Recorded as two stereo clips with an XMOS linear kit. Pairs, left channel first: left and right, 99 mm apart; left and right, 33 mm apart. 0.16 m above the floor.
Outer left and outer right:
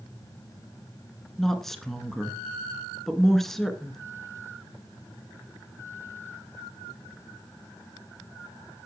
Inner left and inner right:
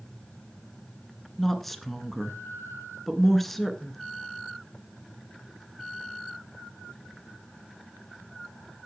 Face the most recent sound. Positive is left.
turn(degrees=5)  # may be behind; listen again after turning